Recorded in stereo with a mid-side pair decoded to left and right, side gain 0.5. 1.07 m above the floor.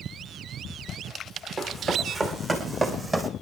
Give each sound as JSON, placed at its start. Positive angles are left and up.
{"t": 1.6, "sound": "running footsteps", "azimuth_deg": -40, "distance_m": 5.0}